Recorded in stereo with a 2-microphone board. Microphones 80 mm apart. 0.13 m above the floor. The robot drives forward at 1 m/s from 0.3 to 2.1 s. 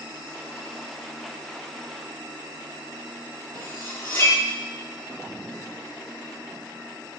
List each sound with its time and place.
3.5 s cutlery clinking: 30° left (ahead or behind), 2.0 m